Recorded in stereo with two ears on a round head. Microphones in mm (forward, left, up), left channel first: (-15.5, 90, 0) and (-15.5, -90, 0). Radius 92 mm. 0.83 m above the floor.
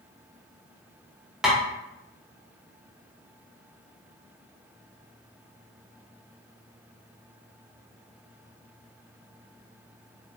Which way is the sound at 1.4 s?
5° right (ahead or behind).